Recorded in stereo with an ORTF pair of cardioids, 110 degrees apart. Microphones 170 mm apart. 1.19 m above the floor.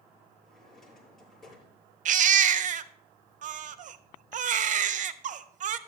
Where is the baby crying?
50° right, 0.6 m.